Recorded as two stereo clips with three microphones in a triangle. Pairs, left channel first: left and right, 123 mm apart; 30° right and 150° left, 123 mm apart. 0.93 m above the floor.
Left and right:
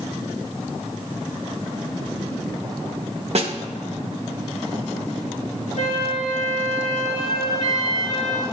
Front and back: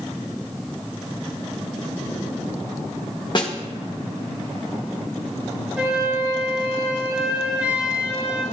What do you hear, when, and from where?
3.4 s a snare drum: 75° right, 1.0 m
5.8 s a flute: 70° left, 3 m